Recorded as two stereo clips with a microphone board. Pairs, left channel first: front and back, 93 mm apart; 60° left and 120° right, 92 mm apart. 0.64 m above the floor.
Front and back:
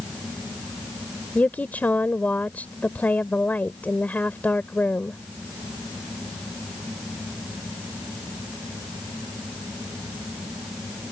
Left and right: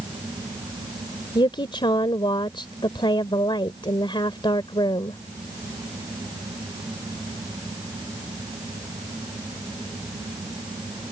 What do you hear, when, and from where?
1.4 s a woman speaking: 70° left